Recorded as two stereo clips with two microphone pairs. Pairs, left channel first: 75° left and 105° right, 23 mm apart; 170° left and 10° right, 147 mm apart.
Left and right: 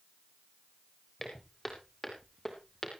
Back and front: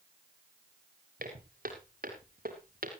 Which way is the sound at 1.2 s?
10° right.